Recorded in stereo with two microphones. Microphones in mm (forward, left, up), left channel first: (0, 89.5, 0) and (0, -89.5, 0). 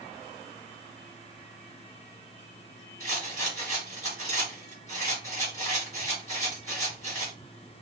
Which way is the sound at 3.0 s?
40° left (ahead or behind).